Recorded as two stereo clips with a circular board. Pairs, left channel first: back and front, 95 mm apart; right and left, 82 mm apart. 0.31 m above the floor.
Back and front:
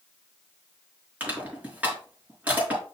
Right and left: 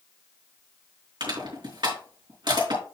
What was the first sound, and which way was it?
Crushing, 70° left.